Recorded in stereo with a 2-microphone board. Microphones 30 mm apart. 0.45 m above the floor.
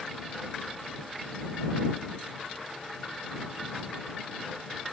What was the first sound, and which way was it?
Only background noise.